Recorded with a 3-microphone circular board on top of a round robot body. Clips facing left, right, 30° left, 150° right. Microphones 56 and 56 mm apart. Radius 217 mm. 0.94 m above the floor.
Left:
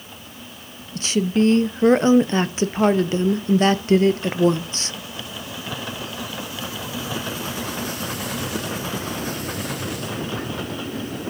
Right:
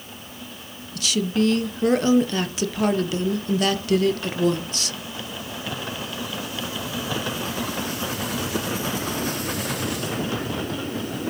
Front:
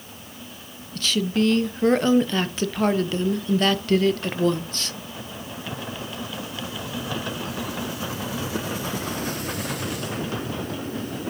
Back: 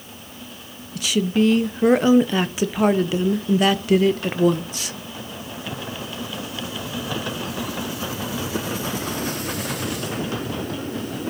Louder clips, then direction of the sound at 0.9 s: Left 3 dB, back 3 dB; 130° left.